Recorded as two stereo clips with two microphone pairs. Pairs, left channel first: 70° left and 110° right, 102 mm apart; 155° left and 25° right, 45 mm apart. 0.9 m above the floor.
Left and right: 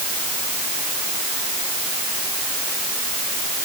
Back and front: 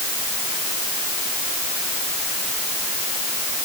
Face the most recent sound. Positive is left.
No sound to turn to.